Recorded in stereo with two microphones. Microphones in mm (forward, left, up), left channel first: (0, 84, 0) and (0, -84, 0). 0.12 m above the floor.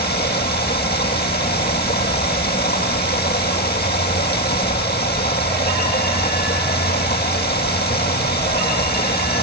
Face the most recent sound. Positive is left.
turn(degrees=75)  # may be behind; listen again after turning